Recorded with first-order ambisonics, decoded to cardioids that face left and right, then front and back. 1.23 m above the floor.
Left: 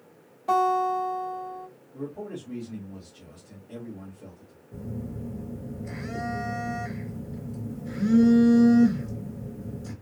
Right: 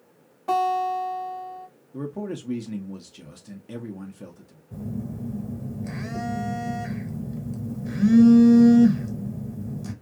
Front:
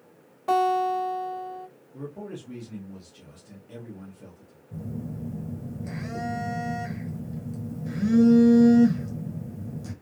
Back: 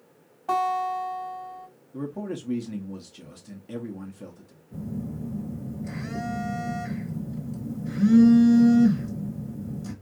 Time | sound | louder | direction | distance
0.5 | a guitar | even, front 2 dB | 10° right | 2 m
1.9 | a man speaking | right 4 dB, back 5 dB | 120° right | 0.7 m
4.7 | a phone buzzing | right 3 dB, back 2 dB | 75° right | 1.4 m